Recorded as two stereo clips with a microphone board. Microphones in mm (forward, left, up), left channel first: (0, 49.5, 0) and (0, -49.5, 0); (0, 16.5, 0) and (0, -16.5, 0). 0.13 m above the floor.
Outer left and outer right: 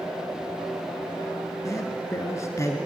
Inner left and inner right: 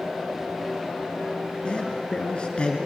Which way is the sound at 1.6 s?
30° left (ahead or behind).